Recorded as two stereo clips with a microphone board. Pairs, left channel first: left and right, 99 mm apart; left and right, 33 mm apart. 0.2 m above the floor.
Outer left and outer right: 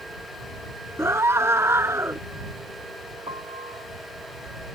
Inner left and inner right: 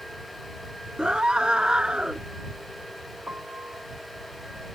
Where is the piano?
70° right (ahead or behind).